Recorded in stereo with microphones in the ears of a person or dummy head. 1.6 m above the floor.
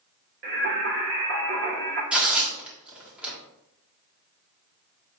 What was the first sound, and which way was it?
Singing, 45° right (ahead or behind).